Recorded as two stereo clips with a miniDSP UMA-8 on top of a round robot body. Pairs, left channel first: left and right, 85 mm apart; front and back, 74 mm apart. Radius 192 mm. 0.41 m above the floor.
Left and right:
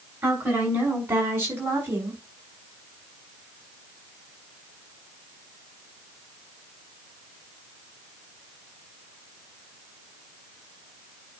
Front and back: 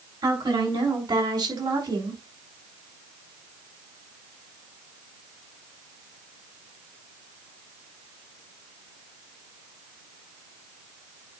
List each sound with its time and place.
0.2 s a woman speaking: 155° right, 5.5 m; by 2.2 s 150° right, 4.5 m